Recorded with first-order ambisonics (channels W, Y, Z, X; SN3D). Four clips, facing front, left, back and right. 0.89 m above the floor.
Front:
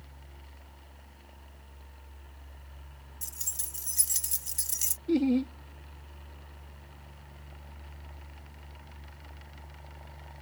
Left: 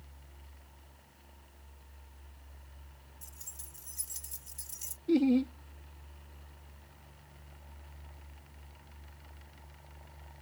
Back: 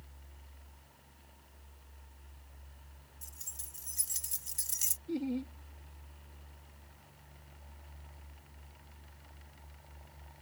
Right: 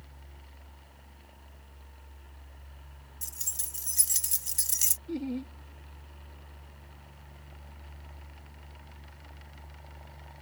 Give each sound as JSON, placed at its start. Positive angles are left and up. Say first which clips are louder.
{"t": 3.2, "sound": "keys jangling", "louder": "right 13 dB, front 10 dB", "azimuth_deg": -50}
{"t": 5.1, "sound": "laughter", "louder": "left 8 dB, front 12 dB", "azimuth_deg": 45}